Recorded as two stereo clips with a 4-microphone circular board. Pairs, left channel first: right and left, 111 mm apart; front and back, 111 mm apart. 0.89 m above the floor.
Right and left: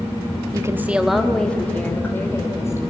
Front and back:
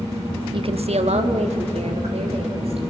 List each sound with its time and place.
0.5 s a woman speaking: 145° left, 1.1 m; by 2.8 s 155° right, 4 m